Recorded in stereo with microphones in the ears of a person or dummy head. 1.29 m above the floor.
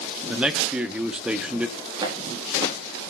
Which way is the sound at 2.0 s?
25° right (ahead or behind).